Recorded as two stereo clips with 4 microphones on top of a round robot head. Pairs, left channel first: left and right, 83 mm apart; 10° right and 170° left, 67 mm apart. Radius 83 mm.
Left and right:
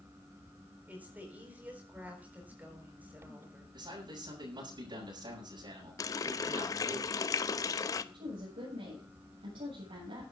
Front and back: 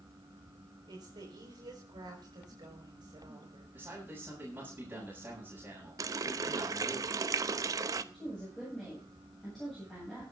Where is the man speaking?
120° right, 7 m.